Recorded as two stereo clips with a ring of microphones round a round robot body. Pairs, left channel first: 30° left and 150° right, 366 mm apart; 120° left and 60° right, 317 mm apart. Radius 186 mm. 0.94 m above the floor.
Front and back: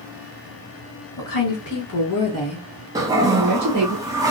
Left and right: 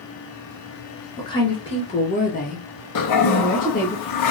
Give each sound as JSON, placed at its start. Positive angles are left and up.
{"t": 1.2, "sound": "a woman speaking", "azimuth_deg": 45, "distance_m": 1.3}
{"t": 3.0, "sound": "a toilet flushing", "azimuth_deg": 130, "distance_m": 0.6}